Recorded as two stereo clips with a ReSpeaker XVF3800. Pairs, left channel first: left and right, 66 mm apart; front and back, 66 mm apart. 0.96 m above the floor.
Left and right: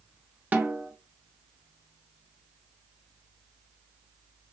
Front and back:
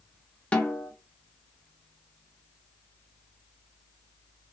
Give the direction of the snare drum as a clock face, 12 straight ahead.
2 o'clock.